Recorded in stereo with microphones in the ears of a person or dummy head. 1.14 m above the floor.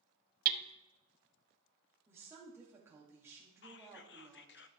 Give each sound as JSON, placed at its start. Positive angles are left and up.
{"t": 0.5, "sound": "hammering", "side_deg": -50, "distance_m": 0.6}
{"t": 2.1, "sound": "a woman speaking", "side_deg": -10, "distance_m": 2.5}
{"t": 3.6, "sound": "whispering", "side_deg": 55, "distance_m": 0.6}